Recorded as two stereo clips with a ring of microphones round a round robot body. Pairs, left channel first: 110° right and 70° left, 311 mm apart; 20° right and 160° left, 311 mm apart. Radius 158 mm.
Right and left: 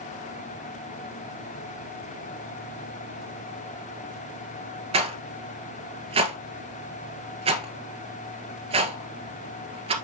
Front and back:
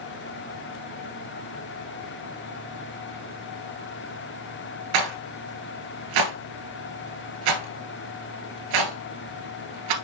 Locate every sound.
4.9 s a rattle: 140° left, 1.5 m